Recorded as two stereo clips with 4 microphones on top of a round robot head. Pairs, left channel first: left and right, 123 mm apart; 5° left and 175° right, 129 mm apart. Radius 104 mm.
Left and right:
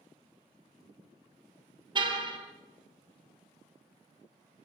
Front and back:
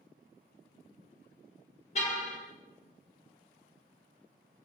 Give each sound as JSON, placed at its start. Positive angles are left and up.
{"t": 1.9, "sound": "a car horn", "azimuth_deg": -40, "distance_m": 4.0}